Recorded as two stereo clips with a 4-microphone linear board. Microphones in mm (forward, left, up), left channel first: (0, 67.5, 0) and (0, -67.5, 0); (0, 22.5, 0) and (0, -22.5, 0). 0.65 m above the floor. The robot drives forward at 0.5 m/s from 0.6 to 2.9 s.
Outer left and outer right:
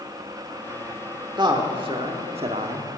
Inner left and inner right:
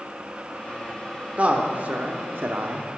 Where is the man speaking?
35° right (ahead or behind), 1.4 m; by 2.9 s 55° right (ahead or behind), 0.9 m.